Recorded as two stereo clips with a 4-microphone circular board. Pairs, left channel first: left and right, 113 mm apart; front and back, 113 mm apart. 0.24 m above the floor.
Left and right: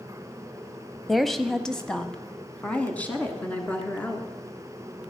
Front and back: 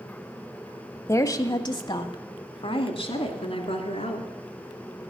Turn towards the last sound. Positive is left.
turn(degrees=15)